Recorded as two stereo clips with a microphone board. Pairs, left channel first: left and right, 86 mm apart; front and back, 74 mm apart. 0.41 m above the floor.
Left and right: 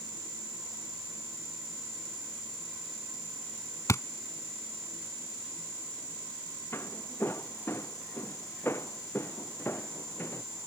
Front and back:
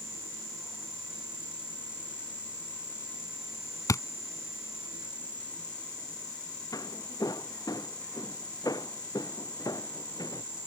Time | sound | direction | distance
3.9 | a thud | 35° left | ?
6.7 | footsteps | 30° left | ?